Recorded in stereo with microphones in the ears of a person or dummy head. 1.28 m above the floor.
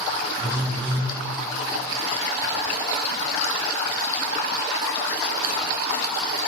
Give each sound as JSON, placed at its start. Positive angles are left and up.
{"t": 0.4, "sound": "a phone buzzing", "side_deg": -30, "distance_m": 1.6}